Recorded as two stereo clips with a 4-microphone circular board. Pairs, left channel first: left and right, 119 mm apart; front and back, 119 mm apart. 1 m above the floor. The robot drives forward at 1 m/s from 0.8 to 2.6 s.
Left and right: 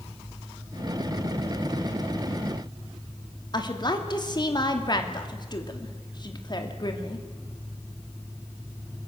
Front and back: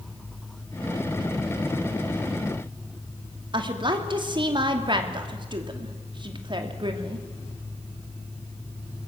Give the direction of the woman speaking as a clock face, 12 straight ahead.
7 o'clock.